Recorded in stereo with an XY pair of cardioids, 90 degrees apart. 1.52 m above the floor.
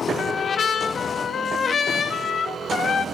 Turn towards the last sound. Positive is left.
turn(degrees=55)